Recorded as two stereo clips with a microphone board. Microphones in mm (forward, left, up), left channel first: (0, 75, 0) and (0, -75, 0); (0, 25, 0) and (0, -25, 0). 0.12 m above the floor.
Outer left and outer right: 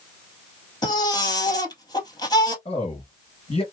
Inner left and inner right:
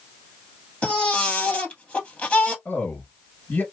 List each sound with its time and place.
0.8 s a baby crying: 30° left (ahead or behind), 1.5 m
2.6 s a man speaking: 40° left (ahead or behind), 2 m